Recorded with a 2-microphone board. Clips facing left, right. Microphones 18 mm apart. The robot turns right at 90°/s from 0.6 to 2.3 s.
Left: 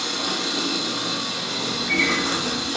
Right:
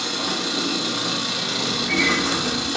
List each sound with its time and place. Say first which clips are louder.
0.0 s an engine running: even; straight behind, 0.7 m; by 2.8 s 25° right, 0.7 m
1.7 s a bird: even; 40° left (ahead or behind), 2 m; by 2.7 s 5° left (ahead or behind), 2 m